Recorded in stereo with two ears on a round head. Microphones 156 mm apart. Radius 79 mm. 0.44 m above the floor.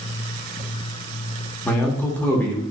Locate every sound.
1.6 s a man speaking: 10° left (ahead or behind), 0.8 m